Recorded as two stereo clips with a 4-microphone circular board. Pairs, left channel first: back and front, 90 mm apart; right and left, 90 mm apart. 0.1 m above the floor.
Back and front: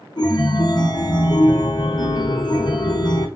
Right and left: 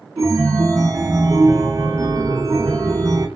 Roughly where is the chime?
Behind left.